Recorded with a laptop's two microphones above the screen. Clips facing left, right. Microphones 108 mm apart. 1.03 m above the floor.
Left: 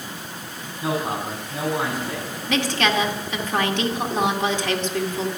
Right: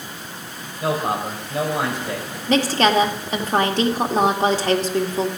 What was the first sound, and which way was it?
A man speaking, 75° right (ahead or behind).